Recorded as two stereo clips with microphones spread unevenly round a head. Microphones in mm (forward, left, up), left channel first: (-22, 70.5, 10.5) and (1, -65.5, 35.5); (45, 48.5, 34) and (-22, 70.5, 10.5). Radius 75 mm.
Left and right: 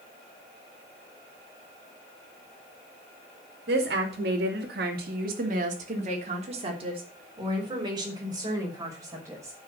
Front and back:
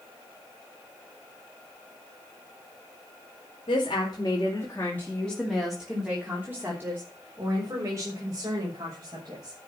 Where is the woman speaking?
65° right, 2.5 m; by 9.6 s 150° right, 6.5 m.